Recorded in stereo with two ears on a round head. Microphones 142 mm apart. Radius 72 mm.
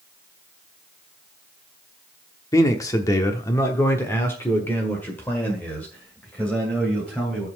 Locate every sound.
2.5 s a man speaking: 20° left (ahead or behind), 0.9 m; by 7.5 s 10° left (ahead or behind), 3 m